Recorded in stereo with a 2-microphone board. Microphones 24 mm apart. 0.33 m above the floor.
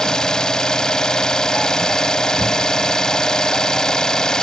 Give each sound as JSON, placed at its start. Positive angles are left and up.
{"t": 0.0, "sound": "an engine running", "side_deg": 35, "distance_m": 0.8}